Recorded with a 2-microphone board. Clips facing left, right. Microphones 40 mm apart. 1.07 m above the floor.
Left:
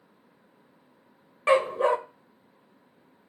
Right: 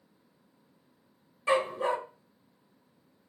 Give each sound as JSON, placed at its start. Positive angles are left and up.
{"t": 1.5, "sound": "a dog barking", "side_deg": 60, "distance_m": 1.2}